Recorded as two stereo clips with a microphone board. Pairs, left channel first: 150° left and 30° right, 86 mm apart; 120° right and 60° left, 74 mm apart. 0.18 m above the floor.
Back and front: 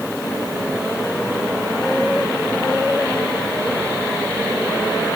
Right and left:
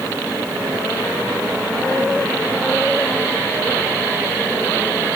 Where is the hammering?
I don't hear hammering.